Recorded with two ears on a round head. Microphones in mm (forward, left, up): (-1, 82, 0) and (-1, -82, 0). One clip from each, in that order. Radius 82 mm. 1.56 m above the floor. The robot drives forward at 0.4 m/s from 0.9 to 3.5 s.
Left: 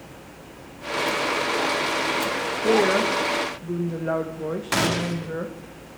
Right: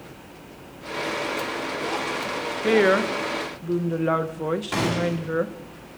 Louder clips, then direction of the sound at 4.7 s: Left 5 dB; 45° left (ahead or behind).